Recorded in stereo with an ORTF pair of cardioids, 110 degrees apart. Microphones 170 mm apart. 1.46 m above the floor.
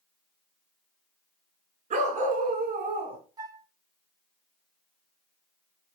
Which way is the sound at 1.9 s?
55° right.